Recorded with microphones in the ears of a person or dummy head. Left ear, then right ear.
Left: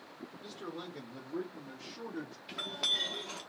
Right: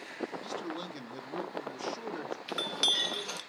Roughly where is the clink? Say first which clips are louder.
Right 4 dB; right.